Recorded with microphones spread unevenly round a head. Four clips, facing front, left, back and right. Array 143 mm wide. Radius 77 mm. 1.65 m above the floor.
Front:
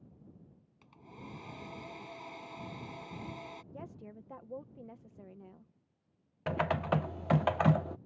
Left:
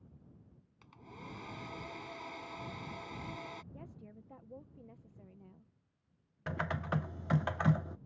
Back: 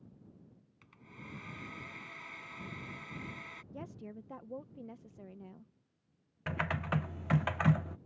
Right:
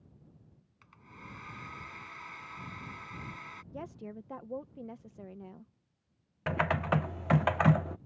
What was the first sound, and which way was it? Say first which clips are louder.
A hair dryer: left 1 dB, front 3 dB; 40° left.